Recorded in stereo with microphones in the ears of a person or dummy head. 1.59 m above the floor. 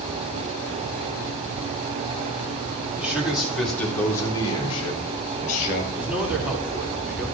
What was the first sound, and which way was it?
A man speaking, 10° right (ahead or behind).